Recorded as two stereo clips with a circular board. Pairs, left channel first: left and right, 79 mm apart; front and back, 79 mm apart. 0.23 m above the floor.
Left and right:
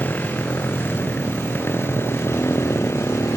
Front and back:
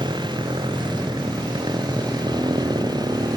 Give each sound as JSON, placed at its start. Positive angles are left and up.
{"t": 0.0, "sound": "a motorcycle", "azimuth_deg": 155}